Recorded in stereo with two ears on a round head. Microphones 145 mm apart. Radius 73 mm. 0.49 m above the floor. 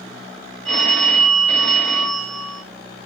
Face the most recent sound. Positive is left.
turn(degrees=5)  # may be behind; listen again after turning